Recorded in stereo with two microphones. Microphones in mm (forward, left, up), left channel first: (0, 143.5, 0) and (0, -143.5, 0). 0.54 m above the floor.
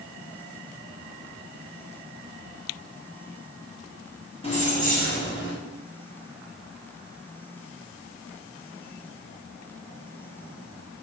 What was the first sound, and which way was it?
Keys jangling, 20° left (ahead or behind).